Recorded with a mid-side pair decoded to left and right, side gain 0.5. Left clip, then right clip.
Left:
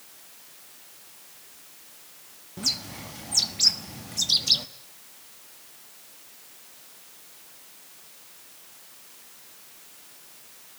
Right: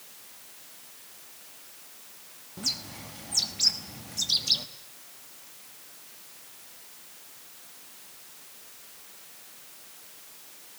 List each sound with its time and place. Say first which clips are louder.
2.6 s a bird: left 4 dB; 25° left, 1.2 m